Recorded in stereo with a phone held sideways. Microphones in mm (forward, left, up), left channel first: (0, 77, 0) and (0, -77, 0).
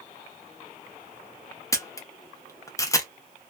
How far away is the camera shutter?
About 0.5 m.